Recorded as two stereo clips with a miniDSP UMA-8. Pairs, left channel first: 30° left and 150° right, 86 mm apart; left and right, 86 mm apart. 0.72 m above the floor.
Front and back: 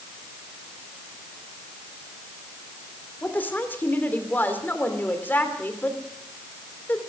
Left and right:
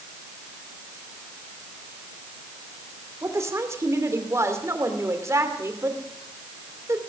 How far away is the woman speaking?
About 2.5 m.